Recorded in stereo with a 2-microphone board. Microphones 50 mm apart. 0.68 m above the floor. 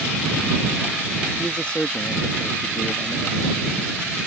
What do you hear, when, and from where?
1.4 s a man speaking: 20° left (ahead or behind)